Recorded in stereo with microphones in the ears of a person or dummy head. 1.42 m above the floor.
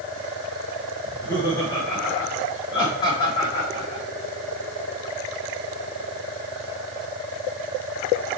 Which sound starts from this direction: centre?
Laughter, at 1.0 s.